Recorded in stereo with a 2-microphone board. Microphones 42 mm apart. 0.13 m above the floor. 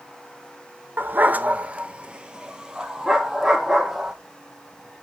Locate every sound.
1.0 s a dog barking: 50° right (ahead or behind), 0.5 m; by 4.1 s 10° right (ahead or behind), 1.9 m